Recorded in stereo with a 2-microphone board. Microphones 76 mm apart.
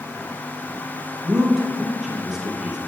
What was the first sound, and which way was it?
A man speaking, 5° right (ahead or behind).